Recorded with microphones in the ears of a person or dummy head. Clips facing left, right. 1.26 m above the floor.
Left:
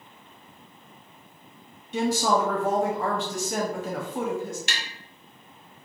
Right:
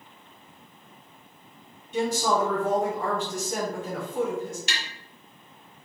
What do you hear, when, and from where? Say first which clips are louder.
1.9 s a woman speaking: left 1 dB; 50° left (ahead or behind), 0.7 m
4.7 s tapping: even; 45° left (ahead or behind), 0.9 m